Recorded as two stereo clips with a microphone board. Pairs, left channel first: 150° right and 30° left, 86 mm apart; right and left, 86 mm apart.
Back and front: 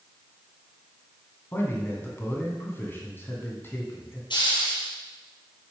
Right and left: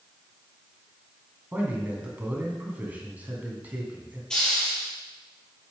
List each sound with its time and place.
1.5 s a man speaking: 155° left, 2 m
4.3 s a hiss: 170° right, 3 m